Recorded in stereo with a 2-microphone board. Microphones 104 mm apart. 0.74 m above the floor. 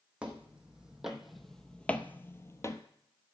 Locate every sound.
0.2 s footsteps: 10° right (ahead or behind), 1.8 m; by 2.8 s 30° left (ahead or behind), 0.9 m